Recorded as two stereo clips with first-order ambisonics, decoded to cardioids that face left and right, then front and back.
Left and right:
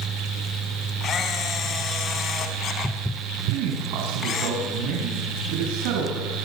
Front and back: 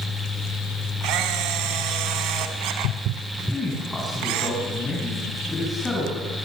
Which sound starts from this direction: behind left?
A camera shutter, at 1.0 s.